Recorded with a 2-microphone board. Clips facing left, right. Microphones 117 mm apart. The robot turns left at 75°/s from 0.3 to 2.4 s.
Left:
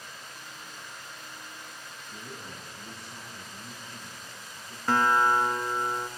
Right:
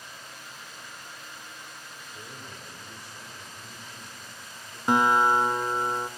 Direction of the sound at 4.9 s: 20° right (ahead or behind).